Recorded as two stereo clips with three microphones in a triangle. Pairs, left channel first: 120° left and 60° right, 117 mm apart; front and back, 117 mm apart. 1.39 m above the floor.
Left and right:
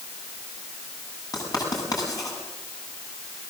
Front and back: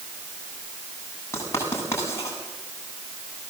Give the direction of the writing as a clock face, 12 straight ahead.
10 o'clock.